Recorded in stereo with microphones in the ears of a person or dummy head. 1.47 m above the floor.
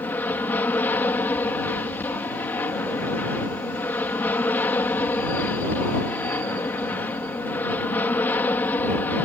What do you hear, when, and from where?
0.0 s an aircraft: 15° left (ahead or behind)